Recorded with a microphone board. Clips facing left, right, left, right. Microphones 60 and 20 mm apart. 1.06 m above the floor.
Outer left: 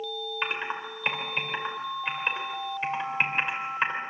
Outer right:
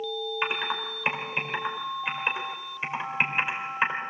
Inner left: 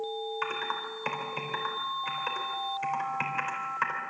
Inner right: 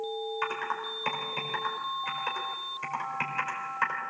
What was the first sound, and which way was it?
Typing on a keyboard, 5° right (ahead or behind).